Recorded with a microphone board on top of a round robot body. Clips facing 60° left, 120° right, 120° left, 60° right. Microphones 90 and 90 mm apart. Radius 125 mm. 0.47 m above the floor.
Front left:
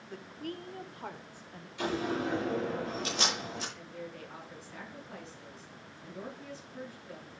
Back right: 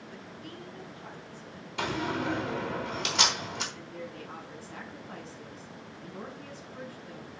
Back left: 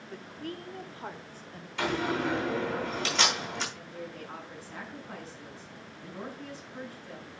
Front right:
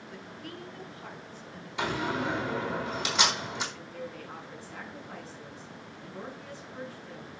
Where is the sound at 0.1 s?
80° left, 1.7 m; by 1.7 s 75° left, 2.5 m.